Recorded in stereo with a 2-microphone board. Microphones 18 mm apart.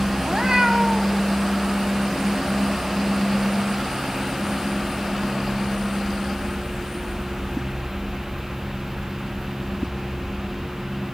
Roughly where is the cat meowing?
Right.